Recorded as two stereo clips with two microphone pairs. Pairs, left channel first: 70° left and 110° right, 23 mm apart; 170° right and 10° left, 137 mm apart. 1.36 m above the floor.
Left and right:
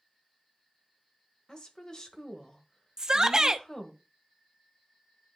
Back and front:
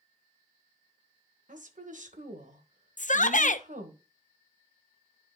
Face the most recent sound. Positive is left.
turn(degrees=-170)